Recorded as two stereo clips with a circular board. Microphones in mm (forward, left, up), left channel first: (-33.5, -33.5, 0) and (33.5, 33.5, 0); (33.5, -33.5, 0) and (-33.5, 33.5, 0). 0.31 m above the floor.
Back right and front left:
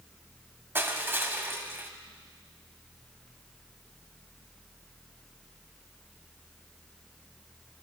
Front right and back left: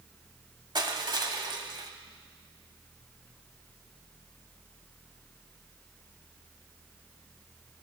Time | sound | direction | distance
0.8 | crushing | 110° left | 1.1 m